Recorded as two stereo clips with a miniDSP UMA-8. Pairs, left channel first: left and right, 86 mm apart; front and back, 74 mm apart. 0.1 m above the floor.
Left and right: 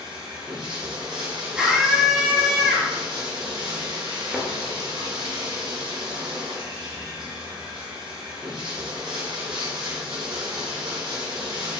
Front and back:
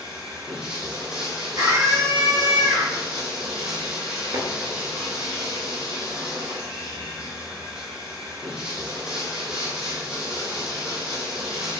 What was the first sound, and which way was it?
Running water, 100° right.